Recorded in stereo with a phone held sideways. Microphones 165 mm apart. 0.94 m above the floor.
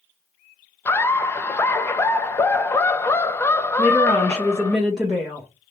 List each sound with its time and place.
0.8 s laughter: 15° left (ahead or behind), 0.5 m
3.8 s a woman speaking: 5° left (ahead or behind), 1.0 m